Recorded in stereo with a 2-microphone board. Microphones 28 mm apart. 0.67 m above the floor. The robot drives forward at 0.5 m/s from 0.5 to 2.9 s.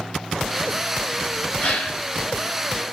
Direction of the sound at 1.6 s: 45° left (ahead or behind).